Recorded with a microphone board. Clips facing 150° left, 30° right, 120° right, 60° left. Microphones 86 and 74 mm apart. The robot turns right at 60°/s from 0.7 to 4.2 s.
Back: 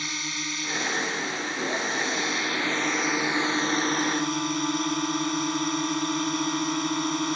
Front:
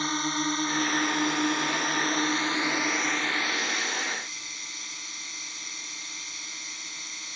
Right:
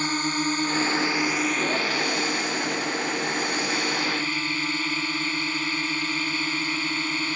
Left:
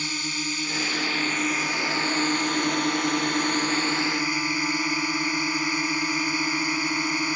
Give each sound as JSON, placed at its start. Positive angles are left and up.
{"t": 0.0, "sound": "a drone", "azimuth_deg": -75}